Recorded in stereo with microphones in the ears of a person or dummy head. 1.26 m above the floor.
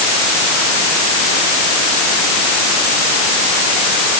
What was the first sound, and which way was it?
Only background noise.